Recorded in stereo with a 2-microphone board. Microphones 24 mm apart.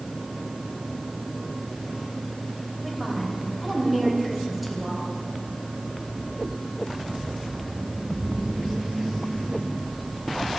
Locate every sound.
2.8 s a woman speaking: 5° right (ahead or behind), 3 m